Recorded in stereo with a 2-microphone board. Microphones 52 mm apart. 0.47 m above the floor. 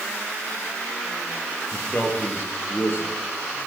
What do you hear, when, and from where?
1.7 s a man speaking: 30° left (ahead or behind), 8 m; by 3.1 s 45° left (ahead or behind), 7.5 m